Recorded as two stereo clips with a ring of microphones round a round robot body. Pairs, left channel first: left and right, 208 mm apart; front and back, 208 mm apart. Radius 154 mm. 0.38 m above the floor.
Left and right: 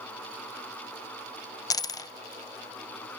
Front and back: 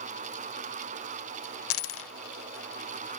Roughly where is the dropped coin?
Ahead.